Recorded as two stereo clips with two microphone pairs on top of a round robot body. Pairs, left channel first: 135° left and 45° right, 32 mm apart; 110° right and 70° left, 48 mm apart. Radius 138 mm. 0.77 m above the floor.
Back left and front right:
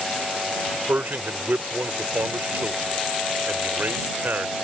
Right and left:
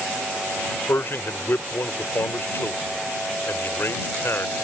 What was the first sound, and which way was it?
A man speaking, 75° right.